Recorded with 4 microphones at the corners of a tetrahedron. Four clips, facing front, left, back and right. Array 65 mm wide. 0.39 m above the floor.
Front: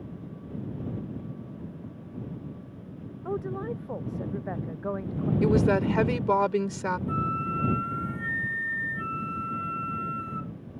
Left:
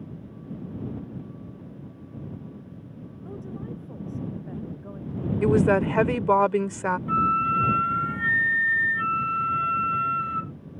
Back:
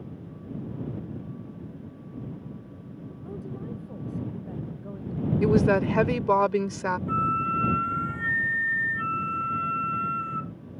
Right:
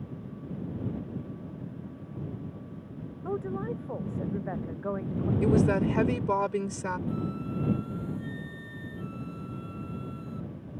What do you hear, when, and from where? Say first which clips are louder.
3.2 s a woman speaking: right 5 dB, front 7 dB; 35° right
5.4 s a woman speaking: left 5 dB, back 2 dB; 105° left
7.1 s a flute: left 12 dB, back 4 dB; 105° left